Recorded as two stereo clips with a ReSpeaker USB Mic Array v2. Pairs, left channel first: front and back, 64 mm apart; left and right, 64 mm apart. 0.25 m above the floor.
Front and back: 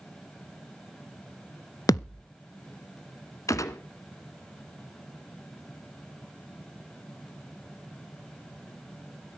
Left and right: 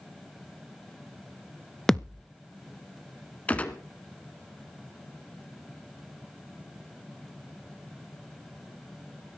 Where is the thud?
5° left, 0.8 m.